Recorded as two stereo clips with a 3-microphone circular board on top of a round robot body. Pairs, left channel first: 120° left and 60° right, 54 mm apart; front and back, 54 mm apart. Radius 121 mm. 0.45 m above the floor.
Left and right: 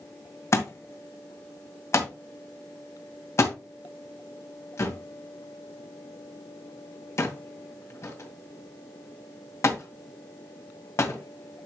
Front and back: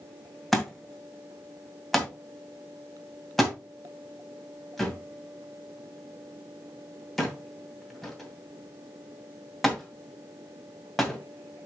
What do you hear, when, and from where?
0.5 s a thud: 90° left, 2 m